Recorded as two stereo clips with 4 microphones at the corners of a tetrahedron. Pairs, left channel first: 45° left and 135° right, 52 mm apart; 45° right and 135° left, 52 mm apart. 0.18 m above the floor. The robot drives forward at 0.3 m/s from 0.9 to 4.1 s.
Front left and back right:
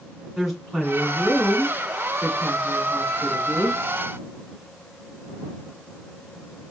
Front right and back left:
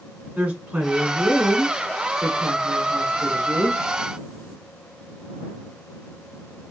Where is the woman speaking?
130° left, 1.7 m; by 3.8 s 155° left, 2 m.